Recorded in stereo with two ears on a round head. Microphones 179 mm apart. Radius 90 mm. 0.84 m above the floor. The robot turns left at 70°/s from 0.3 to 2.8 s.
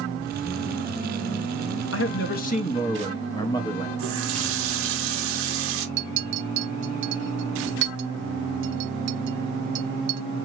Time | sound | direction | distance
1.9 | a man speaking | 85° left | 0.9 m
4.0 | a running tap | 75° right (ahead or behind) | 1.0 m
6.0 | a clink | 65° right (ahead or behind) | 0.7 m